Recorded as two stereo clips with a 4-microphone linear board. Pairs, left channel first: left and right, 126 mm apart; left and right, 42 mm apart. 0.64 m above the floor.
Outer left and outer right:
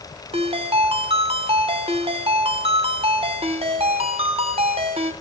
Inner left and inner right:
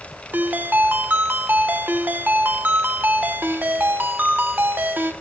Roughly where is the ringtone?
Right.